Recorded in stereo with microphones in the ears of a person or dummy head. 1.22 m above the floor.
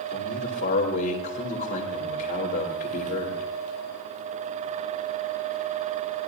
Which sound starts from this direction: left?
A man speaking, at 0.1 s.